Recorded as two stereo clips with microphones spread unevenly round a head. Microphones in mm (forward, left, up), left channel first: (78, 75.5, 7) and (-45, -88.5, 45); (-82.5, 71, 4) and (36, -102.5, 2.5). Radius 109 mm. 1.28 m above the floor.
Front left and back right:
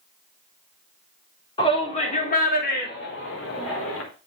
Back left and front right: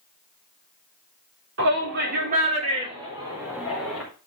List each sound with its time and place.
1.6 s a shout: 15° right, 4 m; by 4.0 s 35° left, 4.5 m